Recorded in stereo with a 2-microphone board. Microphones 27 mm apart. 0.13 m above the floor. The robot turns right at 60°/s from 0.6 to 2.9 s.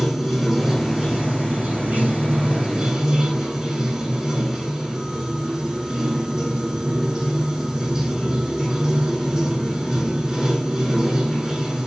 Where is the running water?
165° right, 5.5 m; by 11.9 s 30° right, 5.5 m.